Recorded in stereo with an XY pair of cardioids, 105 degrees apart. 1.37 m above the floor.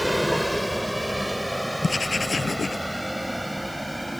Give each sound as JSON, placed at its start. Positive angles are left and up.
{"t": 0.0, "sound": "a vehicle", "azimuth_deg": 0}
{"t": 1.8, "sound": "writing", "azimuth_deg": 25}